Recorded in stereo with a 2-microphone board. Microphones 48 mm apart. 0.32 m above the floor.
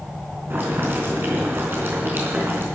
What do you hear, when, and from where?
0.5 s boiling: 50° right (ahead or behind), 4 m